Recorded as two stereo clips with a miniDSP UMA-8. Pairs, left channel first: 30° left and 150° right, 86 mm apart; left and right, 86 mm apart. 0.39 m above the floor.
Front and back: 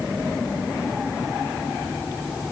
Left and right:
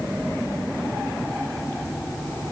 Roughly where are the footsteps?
I don't hear footsteps.